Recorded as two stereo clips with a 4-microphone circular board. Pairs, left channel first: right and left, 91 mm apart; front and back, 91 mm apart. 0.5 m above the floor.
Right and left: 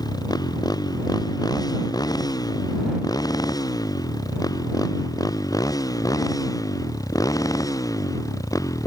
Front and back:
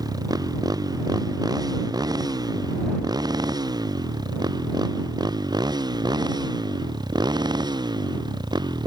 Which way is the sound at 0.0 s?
135° right.